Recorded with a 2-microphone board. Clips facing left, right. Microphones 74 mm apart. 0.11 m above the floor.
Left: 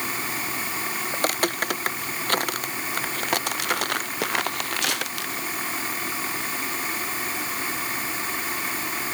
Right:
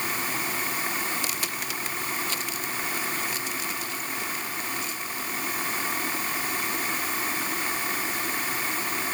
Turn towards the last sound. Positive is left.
turn(degrees=80)